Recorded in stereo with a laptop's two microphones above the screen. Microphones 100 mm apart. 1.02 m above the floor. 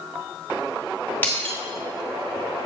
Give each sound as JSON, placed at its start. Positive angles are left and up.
{"t": 1.2, "sound": "breaking glass", "side_deg": 20, "distance_m": 1.0}